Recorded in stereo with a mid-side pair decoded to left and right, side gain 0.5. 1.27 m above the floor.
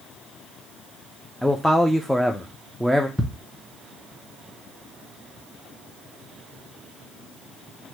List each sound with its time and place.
1.4 s a man speaking: straight ahead, 0.5 m
3.2 s ticking: straight ahead, 1.1 m